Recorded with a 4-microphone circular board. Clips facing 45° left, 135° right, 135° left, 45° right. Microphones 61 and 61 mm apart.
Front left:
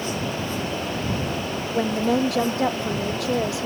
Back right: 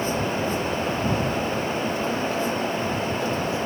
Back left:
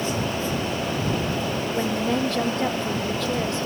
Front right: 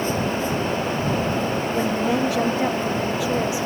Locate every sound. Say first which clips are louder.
1.7 s a woman speaking: front left 4 dB, front right 2 dB; 35° left